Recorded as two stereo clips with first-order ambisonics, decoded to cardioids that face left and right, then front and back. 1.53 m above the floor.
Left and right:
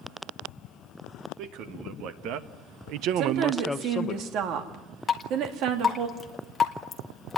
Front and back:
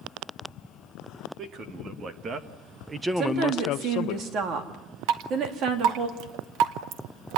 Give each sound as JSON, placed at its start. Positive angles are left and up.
{"t": 1.4, "sound": "a man speaking", "azimuth_deg": -125, "distance_m": 2.5}
{"t": 3.2, "sound": "a woman speaking", "azimuth_deg": -130, "distance_m": 2.5}
{"t": 5.1, "sound": "dripping", "azimuth_deg": 165, "distance_m": 1.6}